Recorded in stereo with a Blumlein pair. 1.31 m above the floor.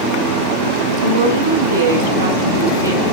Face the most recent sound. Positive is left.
turn(degrees=-75)